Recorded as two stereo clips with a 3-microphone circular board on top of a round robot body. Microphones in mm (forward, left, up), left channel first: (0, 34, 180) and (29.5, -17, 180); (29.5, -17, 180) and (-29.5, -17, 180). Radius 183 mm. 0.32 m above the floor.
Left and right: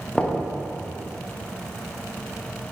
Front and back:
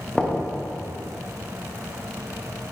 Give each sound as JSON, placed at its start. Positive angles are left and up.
{"t": 0.1, "sound": "knocking", "azimuth_deg": 60, "distance_m": 0.8}